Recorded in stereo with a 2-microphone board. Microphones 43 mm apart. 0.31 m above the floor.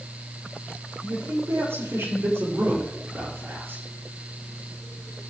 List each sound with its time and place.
1.0 s a man speaking: 80° right, 8 m; by 3.8 s 65° right (ahead or behind), 6.5 m